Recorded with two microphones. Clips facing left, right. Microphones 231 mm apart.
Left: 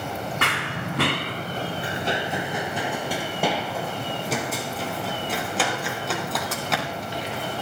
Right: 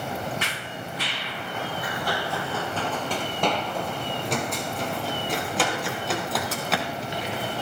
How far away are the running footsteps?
About 0.6 m.